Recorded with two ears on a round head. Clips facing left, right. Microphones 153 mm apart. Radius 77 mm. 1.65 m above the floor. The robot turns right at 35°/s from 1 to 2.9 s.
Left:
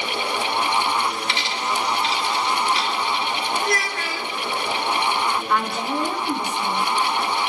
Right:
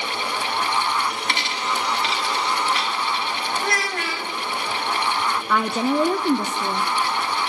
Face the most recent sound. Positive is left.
turn(degrees=-65)  # may be behind; listen again after turning